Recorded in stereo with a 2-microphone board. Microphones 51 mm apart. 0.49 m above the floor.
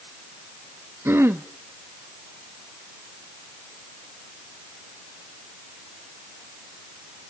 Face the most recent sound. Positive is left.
turn(degrees=-45)  # may be behind; listen again after turning